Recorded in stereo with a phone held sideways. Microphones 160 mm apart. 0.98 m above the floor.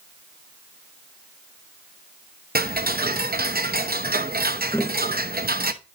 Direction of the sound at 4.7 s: 15° left (ahead or behind).